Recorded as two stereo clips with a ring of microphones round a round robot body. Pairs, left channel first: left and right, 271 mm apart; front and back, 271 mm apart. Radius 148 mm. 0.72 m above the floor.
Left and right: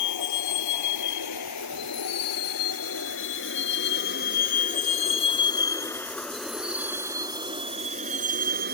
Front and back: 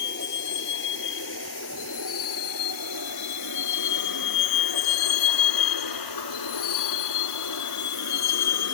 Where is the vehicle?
60° left; by 8.8 s 30° right.